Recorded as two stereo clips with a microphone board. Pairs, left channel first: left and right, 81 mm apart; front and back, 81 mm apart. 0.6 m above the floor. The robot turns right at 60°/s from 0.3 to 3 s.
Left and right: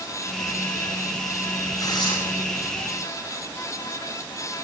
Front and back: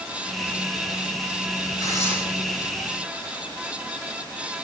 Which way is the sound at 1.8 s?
45° left.